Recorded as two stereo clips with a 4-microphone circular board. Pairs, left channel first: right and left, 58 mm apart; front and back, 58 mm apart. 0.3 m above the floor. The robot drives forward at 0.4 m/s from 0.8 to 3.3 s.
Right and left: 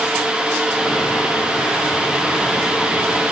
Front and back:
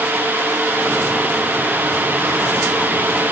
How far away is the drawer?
I don't hear a drawer.